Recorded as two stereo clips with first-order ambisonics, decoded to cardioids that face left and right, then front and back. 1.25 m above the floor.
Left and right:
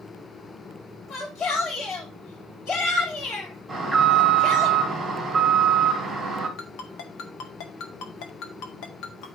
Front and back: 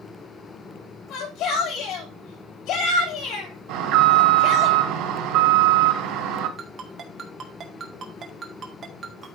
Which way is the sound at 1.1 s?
40° left.